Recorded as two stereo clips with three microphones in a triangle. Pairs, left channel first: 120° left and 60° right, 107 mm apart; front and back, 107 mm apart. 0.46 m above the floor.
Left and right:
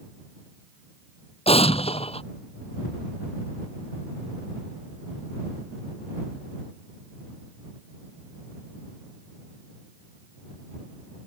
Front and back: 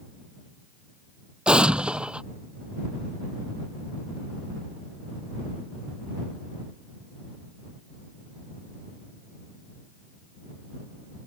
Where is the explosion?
100° left.